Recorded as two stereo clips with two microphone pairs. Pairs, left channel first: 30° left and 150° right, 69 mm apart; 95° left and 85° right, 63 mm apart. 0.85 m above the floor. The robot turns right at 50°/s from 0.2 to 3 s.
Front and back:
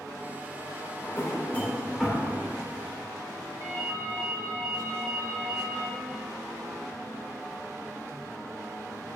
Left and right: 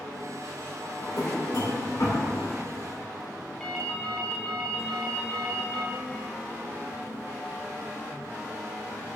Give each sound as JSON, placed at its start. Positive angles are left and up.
{"t": 1.0, "sound": "a drawer", "azimuth_deg": 70, "distance_m": 1.7}
{"t": 3.6, "sound": "a ringtone", "azimuth_deg": 175, "distance_m": 1.7}